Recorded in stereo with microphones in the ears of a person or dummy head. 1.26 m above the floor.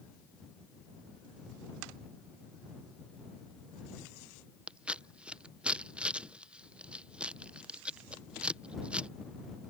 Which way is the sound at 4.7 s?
5° right (ahead or behind).